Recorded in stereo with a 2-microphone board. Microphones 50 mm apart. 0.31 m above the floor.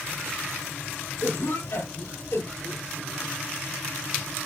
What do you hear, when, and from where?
1.2 s a cough: 65° left (ahead or behind), 6.5 m